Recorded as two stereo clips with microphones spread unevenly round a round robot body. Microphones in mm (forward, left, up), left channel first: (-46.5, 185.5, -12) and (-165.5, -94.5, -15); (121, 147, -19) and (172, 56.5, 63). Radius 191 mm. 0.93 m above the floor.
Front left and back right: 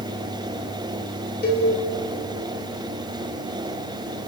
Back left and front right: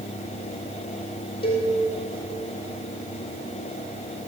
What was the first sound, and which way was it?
A cowbell, 125° left.